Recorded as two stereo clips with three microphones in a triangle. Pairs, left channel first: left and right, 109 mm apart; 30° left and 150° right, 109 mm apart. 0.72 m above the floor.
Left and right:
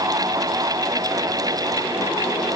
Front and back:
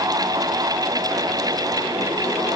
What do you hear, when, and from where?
Only background noise.